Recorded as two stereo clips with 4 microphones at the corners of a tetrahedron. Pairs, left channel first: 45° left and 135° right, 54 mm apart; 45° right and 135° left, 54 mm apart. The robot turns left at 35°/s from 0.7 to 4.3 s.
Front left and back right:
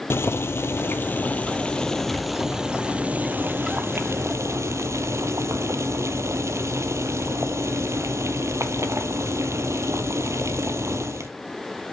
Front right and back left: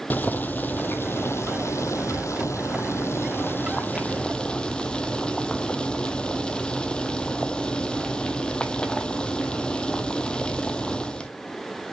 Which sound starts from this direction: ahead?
Boiling, at 0.1 s.